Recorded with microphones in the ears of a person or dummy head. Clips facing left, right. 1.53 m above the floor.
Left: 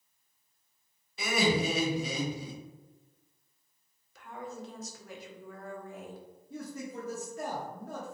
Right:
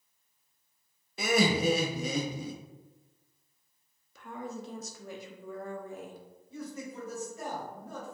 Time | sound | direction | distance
1.2 | laughter | 40° right (ahead or behind) | 0.5 m
4.2 | a woman speaking | 80° right | 0.6 m
6.5 | a man speaking | 50° left (ahead or behind) | 1.0 m